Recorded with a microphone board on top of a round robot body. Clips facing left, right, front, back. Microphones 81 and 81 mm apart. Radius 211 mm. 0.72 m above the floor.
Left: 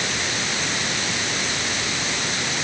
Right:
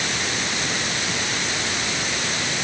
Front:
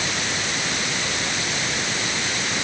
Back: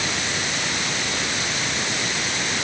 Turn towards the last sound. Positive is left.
No sound to turn to.